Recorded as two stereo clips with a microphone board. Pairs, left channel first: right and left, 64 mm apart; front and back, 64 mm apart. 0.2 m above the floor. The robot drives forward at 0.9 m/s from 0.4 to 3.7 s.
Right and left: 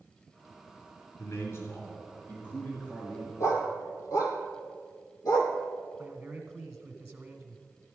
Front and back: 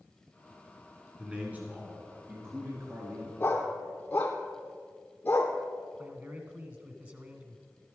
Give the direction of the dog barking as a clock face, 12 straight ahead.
2 o'clock.